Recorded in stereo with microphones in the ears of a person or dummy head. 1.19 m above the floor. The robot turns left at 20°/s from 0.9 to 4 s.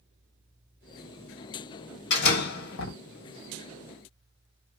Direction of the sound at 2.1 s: 60° left (ahead or behind).